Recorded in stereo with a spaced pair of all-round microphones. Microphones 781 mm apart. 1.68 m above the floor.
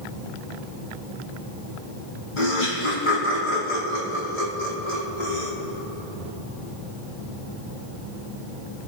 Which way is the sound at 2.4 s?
75° left (ahead or behind).